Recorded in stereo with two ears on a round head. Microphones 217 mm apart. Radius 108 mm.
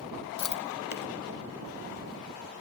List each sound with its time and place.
0.4 s chewing: 85° left, 0.8 m